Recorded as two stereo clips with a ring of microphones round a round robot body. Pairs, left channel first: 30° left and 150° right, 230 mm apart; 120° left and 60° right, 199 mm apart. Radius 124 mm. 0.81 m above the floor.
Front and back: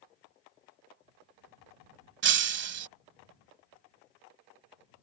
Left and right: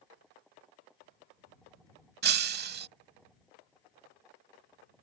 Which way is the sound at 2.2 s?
110° right.